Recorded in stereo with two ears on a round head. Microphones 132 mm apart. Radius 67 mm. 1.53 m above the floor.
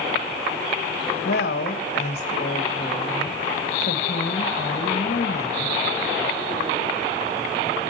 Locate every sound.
1.2 s a woman speaking: 70° left (ahead or behind), 2.5 m